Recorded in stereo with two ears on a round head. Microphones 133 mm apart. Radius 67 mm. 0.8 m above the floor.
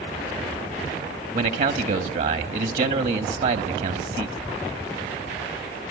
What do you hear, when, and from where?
1.3 s a man speaking: 55° right (ahead or behind), 1.3 m